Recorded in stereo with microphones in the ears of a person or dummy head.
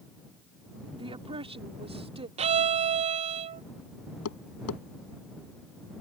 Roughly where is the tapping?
Left.